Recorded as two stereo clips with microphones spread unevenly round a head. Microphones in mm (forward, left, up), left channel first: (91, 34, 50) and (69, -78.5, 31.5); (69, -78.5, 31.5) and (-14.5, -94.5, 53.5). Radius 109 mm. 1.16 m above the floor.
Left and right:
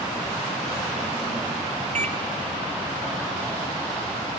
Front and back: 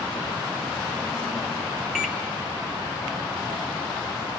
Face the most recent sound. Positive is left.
turn(degrees=-85)